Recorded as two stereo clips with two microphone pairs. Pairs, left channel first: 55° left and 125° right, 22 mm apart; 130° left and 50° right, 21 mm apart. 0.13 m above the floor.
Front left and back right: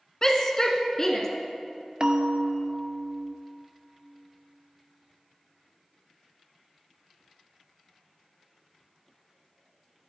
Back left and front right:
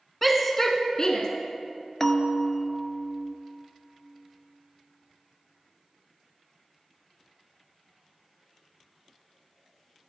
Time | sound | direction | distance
0.2 | a shout | 45° left | 1.2 m
2.0 | a bell | 170° right | 0.8 m